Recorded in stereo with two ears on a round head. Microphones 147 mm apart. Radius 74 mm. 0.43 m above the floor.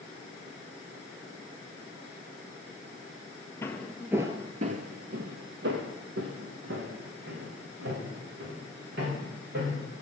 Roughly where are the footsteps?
Centre.